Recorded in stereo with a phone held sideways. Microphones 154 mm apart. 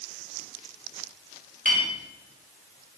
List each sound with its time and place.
1.6 s a clink: 60° right (ahead or behind), 2 m